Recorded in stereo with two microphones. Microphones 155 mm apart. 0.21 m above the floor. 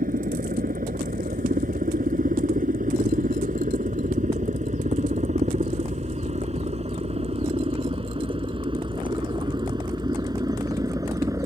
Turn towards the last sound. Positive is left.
turn(degrees=-20)  # may be behind; listen again after turning